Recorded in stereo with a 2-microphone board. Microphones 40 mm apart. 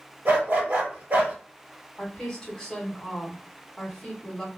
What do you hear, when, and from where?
0.2 s a dog barking: 60° right (ahead or behind), 1.5 m
2.0 s a woman speaking: 20° left (ahead or behind), 1.5 m